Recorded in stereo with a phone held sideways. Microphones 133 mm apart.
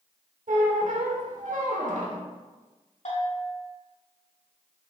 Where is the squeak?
75° right (ahead or behind), 1.2 m.